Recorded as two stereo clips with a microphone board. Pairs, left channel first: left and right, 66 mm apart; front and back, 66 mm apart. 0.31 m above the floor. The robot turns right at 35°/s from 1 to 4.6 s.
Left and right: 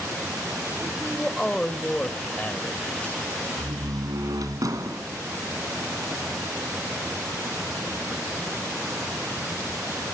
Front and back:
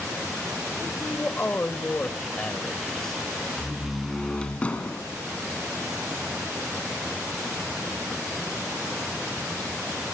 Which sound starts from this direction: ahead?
A man speaking, at 1.0 s.